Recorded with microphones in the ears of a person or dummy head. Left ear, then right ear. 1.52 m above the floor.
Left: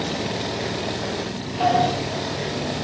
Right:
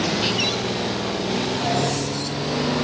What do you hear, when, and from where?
1.6 s a sliding door: 60° left (ahead or behind), 0.9 m